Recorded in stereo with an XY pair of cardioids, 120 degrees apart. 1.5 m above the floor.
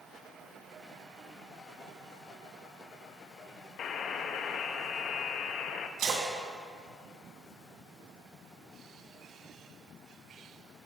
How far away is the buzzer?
About 0.6 m.